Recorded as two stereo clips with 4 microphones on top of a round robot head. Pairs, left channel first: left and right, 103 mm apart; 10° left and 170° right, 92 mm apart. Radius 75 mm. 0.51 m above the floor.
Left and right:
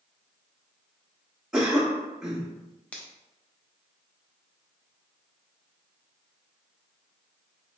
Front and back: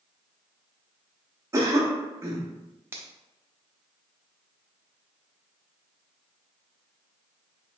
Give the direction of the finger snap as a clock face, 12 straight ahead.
7 o'clock.